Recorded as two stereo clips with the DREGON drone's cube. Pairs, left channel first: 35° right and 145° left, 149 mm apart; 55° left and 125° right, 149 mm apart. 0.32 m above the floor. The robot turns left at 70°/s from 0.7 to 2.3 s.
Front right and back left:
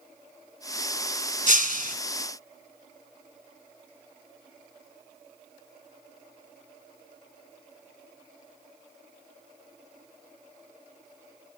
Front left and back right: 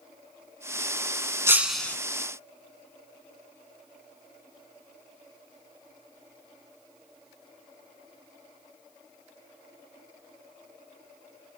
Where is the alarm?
I don't hear an alarm.